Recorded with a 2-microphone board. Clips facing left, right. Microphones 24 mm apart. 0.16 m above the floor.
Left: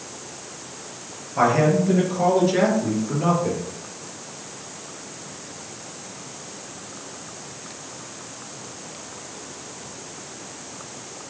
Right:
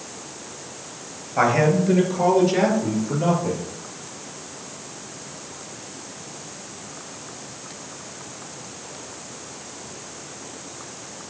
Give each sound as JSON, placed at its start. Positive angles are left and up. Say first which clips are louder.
{"t": 1.4, "sound": "a man speaking", "louder": "even", "side_deg": -15, "distance_m": 2.5}